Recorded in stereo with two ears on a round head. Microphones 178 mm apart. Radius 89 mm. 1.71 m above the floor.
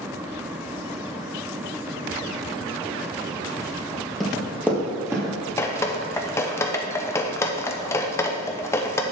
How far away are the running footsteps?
About 2 m.